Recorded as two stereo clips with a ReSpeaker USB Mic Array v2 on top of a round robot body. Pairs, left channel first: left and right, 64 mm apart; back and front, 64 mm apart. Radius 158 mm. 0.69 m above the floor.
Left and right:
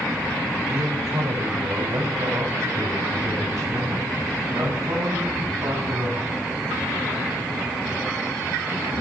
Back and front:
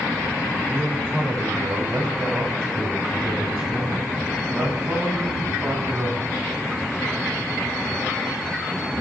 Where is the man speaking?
60° right, 1.9 m.